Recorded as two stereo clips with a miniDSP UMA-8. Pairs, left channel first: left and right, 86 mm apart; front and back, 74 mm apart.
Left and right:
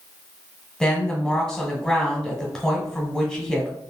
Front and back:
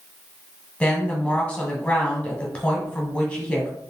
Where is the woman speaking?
30° left, 1.2 m.